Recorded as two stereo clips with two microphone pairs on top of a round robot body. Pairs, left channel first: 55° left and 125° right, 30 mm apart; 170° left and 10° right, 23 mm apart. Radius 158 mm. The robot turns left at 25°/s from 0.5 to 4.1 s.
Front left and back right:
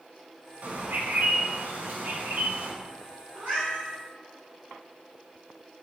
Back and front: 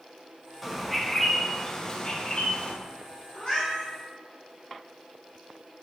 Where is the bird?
95° right, 0.7 m; by 2.7 s 145° right, 0.7 m.